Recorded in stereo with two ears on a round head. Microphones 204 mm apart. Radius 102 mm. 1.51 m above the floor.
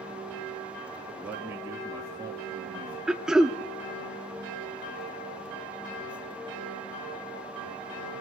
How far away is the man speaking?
About 3 m.